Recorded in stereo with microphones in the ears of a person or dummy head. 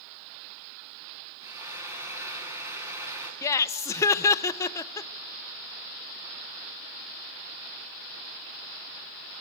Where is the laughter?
25° left (ahead or behind), 0.9 m.